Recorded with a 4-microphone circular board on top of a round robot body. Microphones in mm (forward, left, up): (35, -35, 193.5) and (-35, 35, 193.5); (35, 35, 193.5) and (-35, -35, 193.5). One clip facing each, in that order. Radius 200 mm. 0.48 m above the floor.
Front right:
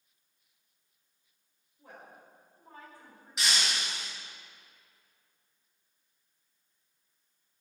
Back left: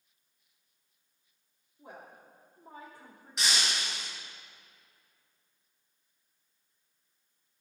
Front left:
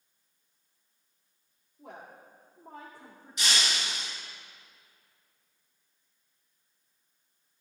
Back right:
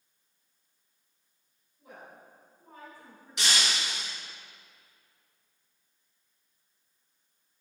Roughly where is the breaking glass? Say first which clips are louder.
Even, back right 1 dB; behind right.